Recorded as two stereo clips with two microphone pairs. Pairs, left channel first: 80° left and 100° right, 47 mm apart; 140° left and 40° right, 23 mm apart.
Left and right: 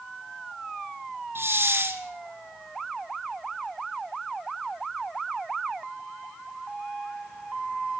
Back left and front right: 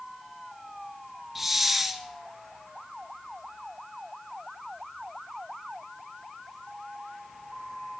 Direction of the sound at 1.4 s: 120° right.